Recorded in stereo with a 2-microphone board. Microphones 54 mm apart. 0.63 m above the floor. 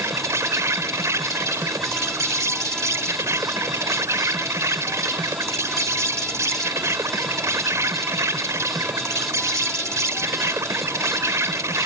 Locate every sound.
0.0 s an insect: 60° right (ahead or behind)